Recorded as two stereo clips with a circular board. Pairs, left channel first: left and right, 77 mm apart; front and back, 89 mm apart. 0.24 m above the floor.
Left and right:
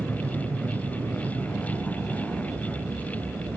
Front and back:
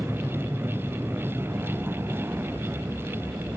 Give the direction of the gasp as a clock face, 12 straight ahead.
No gasp in this recording.